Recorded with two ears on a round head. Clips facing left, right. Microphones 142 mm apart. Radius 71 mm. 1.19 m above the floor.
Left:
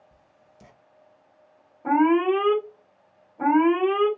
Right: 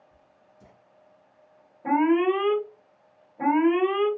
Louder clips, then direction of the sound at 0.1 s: Even; 80° left.